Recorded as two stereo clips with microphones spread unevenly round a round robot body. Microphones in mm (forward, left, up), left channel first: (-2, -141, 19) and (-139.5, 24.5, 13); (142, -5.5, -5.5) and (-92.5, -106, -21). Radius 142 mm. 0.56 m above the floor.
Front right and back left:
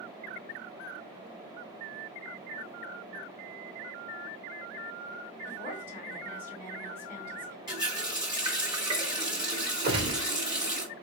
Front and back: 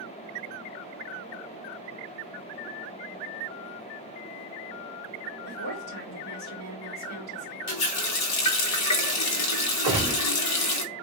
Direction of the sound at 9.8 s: 135° left.